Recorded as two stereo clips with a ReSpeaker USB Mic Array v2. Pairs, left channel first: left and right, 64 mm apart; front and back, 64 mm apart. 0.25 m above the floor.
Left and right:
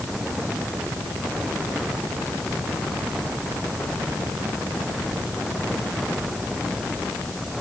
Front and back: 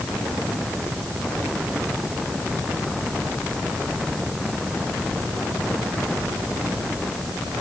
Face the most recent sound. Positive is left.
No sound to turn to.